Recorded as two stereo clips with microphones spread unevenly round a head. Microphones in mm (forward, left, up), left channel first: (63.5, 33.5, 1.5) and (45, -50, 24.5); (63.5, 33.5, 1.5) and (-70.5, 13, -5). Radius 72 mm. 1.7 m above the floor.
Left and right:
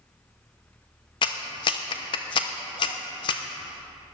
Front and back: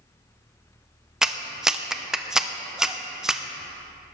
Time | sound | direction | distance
1.2 | a clap | 100° left | 0.7 m